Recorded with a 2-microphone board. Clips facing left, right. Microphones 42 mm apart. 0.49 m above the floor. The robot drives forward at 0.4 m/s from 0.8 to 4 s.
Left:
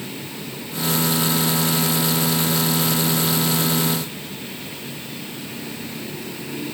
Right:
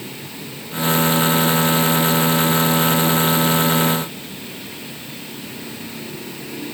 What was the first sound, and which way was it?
Only background noise.